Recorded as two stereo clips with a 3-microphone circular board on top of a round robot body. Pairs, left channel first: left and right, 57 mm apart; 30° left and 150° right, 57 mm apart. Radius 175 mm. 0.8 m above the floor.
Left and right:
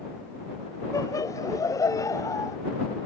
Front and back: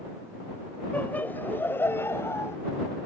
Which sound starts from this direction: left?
Laughter, at 0.9 s.